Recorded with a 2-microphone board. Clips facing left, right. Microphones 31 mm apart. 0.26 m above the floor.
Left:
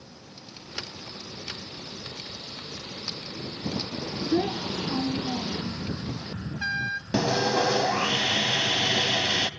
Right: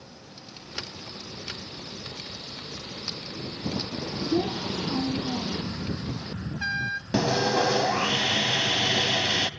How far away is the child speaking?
About 1.0 m.